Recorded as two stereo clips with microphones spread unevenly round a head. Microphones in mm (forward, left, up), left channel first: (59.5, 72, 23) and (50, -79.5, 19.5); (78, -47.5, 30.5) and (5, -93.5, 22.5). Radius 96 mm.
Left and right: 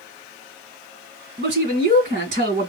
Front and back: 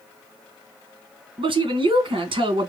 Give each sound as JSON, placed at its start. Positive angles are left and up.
{"t": 1.4, "sound": "a man speaking", "azimuth_deg": -130, "distance_m": 2.0}